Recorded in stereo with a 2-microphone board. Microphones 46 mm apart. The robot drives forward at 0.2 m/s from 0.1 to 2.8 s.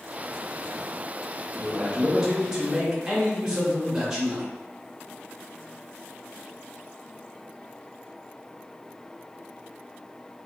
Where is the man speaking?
10° right (ahead or behind), 0.7 m.